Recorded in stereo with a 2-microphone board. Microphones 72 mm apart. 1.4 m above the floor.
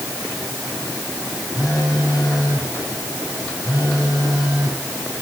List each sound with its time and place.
1.6 s a phone buzzing: 50° right (ahead or behind), 5.5 m